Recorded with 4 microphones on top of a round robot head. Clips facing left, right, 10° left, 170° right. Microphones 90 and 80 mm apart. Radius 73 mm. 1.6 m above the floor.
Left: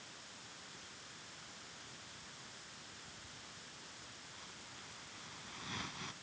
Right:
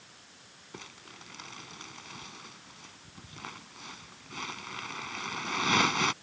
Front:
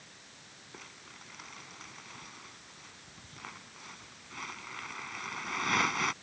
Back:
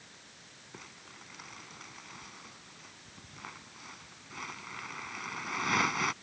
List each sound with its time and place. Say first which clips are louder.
0.7 s crumpling: right 8 dB, back 1 dB; 80° right